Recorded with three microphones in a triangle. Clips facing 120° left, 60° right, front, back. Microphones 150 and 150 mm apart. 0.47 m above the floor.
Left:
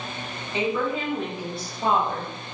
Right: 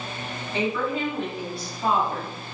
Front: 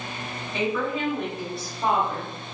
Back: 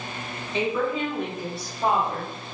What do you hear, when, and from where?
0.5 s a woman speaking: 155° left, 0.8 m; by 2.3 s 110° left, 1.5 m